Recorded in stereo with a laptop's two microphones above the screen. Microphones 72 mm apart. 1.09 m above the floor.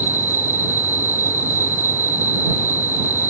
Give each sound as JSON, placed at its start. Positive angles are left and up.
{"t": 0.0, "sound": "an insect", "side_deg": 50}